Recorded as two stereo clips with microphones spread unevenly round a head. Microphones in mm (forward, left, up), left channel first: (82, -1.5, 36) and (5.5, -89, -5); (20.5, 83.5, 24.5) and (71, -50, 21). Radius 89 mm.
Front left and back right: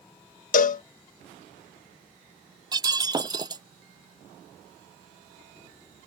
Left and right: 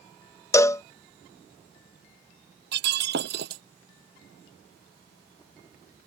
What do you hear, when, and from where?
0.5 s a cowbell: 40° left
2.7 s breaking glass: 75° right